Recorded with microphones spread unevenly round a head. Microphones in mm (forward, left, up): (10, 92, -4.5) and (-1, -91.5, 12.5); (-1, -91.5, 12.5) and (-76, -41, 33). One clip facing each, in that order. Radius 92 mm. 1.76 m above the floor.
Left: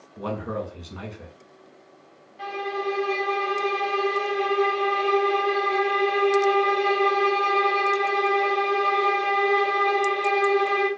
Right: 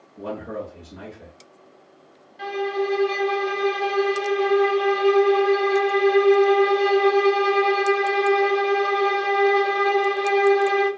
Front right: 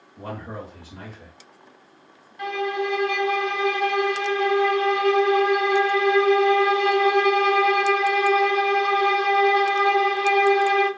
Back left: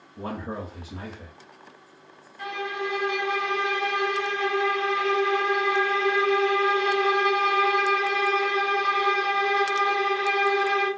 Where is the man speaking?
85° left, 1.2 m.